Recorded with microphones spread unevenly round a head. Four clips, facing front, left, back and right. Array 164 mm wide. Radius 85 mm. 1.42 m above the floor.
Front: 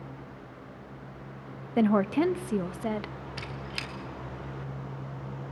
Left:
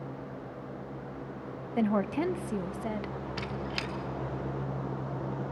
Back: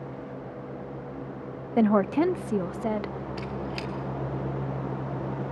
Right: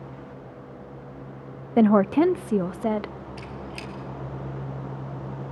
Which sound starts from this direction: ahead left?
A squeak, at 3.4 s.